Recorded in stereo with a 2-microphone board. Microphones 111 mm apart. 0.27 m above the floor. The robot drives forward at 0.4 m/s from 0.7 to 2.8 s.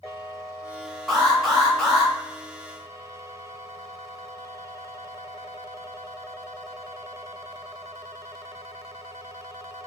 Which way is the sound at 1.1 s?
Centre (ahead or behind).